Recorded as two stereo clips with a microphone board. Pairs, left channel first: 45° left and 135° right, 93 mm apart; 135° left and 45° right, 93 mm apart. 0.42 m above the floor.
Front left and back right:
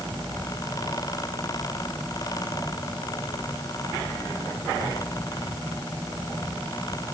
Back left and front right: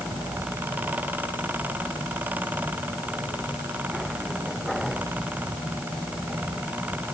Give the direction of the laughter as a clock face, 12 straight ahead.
I don't hear laughter.